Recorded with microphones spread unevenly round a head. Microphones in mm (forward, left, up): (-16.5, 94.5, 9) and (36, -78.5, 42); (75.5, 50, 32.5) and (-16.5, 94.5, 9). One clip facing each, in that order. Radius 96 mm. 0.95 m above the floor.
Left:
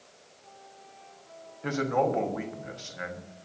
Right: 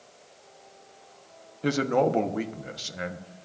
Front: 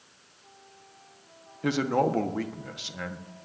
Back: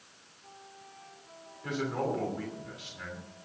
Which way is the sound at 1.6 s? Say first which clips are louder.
Right 3 dB, front 7 dB; 25° right.